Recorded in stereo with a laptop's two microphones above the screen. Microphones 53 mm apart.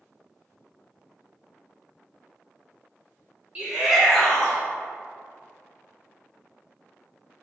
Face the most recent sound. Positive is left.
turn(degrees=30)  # may be behind; listen again after turning